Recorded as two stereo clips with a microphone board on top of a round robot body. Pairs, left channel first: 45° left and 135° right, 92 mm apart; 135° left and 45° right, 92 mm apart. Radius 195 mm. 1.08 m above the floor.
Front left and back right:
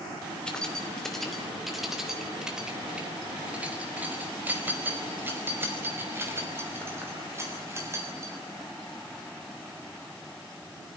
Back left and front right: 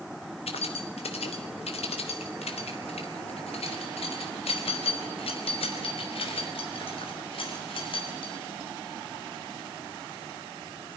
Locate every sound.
0.5 s keys jangling: 125° left, 3 m; by 8.4 s 165° left, 6.5 m